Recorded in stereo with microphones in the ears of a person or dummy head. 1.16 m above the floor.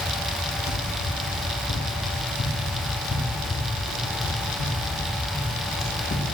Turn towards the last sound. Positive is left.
turn(degrees=30)  # may be behind; listen again after turning